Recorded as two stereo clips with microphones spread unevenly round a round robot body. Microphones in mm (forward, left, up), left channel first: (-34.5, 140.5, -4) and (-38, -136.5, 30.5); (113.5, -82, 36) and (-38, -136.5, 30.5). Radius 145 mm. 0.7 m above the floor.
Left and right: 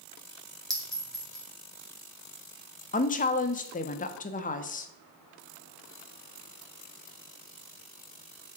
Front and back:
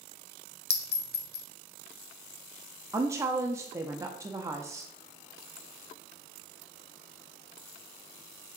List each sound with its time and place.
0.7 s a clink: straight ahead, 1.0 m
2.9 s a woman speaking: 135° left, 0.8 m